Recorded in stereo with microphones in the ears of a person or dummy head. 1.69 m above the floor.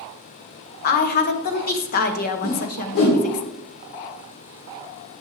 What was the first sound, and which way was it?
A woman speaking, 55° left (ahead or behind).